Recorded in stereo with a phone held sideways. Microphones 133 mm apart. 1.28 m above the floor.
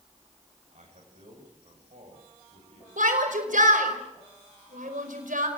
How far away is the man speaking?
About 7.5 m.